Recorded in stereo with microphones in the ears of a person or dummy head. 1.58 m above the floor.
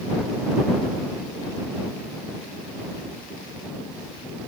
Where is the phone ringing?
I don't hear a phone ringing.